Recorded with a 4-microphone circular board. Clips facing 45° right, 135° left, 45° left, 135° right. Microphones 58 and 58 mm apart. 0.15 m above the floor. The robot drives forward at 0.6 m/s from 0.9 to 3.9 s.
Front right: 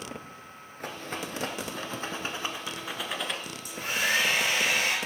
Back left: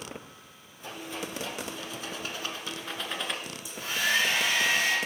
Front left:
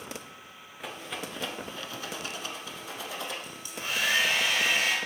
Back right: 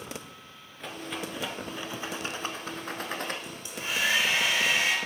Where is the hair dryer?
70° right, 3.5 m; by 5.0 s 75° right, 3.5 m.